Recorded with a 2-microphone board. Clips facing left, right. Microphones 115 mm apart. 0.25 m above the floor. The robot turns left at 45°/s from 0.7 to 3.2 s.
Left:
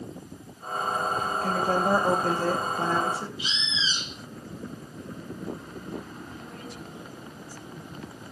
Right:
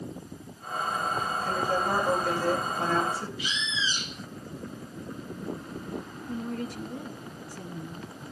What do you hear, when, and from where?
1.4 s a woman speaking: 95° left, 6.5 m; by 3.3 s 15° left, 6.5 m
3.4 s a bird: 25° left (ahead or behind), 0.9 m
6.3 s a woman speaking: 60° right (ahead or behind), 2.5 m